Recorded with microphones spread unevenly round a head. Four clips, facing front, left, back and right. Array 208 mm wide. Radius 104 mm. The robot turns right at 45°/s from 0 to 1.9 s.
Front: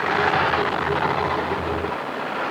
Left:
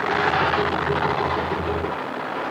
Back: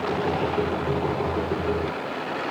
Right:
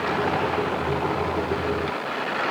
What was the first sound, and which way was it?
Only background noise.